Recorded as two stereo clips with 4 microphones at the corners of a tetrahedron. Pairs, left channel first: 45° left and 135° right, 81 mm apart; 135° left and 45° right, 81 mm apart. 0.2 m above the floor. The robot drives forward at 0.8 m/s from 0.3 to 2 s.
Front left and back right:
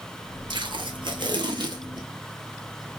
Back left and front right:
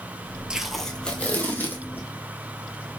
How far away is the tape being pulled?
About 0.6 m.